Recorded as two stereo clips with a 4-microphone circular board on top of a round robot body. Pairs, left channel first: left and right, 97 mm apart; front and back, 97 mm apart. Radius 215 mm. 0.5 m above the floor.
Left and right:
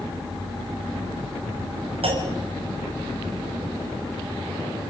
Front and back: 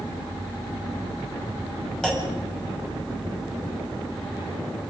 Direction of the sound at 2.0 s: 85° right.